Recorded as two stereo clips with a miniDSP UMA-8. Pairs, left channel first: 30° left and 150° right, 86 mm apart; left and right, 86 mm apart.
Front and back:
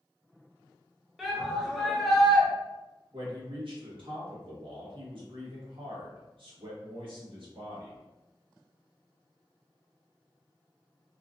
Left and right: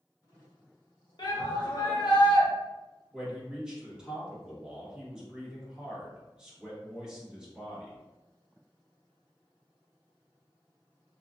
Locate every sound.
1.2 s a shout: 120° left, 0.9 m
3.1 s a man speaking: 170° right, 1.2 m